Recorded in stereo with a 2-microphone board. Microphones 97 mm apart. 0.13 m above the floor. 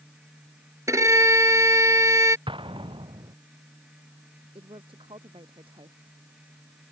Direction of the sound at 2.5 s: 70° right (ahead or behind).